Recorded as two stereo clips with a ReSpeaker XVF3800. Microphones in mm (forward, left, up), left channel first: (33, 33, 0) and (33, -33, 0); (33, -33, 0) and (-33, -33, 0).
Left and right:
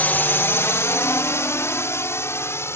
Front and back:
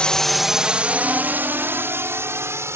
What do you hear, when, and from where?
0.0 s a drone: 60° left; by 2.8 s 135° left